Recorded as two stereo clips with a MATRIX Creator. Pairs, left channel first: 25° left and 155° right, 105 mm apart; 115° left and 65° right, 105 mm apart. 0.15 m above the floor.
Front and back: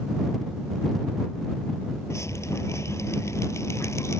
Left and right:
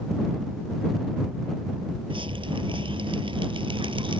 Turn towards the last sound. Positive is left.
turn(degrees=-40)